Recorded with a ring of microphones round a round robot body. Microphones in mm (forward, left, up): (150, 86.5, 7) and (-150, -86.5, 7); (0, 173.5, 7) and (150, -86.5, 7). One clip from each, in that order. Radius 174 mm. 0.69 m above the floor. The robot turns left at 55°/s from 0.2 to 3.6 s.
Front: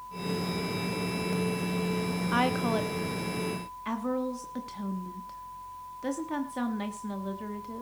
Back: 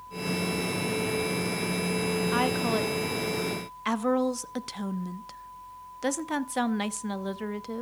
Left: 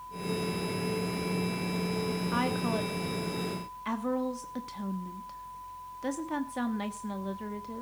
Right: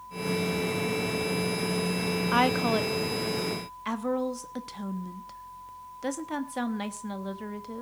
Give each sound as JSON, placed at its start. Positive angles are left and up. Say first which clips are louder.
{"t": 2.3, "sound": "a woman speaking", "louder": "front 1 dB, right 8 dB", "azimuth_deg": -60, "distance_m": 0.8}